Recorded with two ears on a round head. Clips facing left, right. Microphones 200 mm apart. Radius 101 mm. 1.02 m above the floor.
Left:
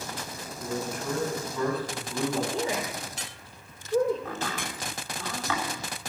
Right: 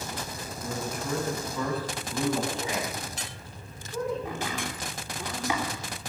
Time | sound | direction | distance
0.6 | a man speaking | centre (ahead or behind) | 6 m
2.5 | a woman speaking | 35° left (ahead or behind) | 3 m
4.2 | chopping | 15° right (ahead or behind) | 3.5 m